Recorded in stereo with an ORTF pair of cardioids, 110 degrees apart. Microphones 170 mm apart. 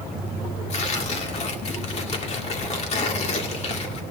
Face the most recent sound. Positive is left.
turn(degrees=40)